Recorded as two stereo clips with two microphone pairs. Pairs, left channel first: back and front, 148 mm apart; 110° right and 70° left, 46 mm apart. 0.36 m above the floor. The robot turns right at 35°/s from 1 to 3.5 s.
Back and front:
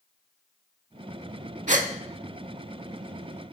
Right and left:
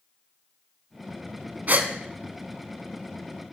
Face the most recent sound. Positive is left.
turn(degrees=90)